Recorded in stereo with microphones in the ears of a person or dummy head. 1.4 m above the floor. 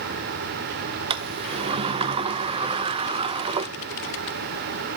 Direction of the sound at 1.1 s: 25° right (ahead or behind).